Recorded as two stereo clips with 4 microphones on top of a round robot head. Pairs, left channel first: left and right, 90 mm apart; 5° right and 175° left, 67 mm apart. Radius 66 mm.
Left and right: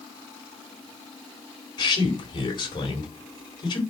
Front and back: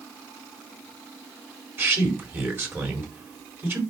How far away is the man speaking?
About 3.5 m.